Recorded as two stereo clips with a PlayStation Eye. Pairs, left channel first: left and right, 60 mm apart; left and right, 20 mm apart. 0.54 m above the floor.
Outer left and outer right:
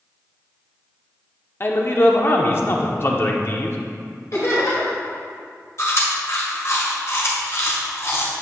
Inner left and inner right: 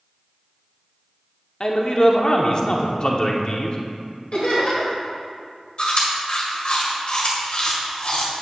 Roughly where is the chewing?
Left.